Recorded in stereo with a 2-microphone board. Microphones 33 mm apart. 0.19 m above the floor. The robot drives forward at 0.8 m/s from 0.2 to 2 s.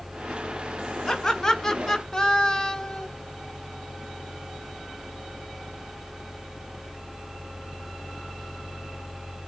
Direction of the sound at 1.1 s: 10° left (ahead or behind).